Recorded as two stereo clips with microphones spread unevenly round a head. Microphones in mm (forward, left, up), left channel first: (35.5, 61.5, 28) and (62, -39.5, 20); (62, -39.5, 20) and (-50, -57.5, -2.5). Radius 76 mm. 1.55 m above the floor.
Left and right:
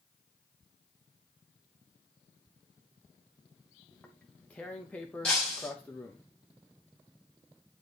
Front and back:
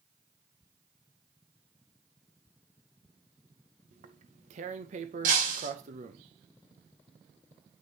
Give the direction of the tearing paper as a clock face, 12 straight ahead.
6 o'clock.